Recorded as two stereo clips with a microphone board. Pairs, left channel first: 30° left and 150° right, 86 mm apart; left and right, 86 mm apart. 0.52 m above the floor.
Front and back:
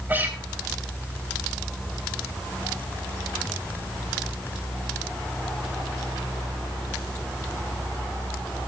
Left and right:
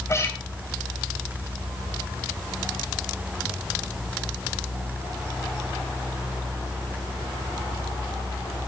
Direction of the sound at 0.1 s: 145° left.